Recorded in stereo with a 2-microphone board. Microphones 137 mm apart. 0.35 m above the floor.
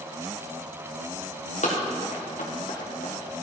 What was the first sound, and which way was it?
Running footsteps, 70° left (ahead or behind).